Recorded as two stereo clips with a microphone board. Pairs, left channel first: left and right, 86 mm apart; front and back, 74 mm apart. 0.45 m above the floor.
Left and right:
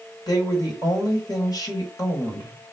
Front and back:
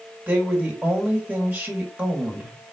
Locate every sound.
0.3 s a woman speaking: 115° left, 1.6 m